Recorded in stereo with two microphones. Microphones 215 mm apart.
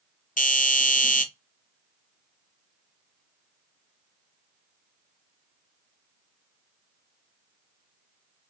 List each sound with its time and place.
0.4 s a doorbell: 40° left (ahead or behind), 0.9 m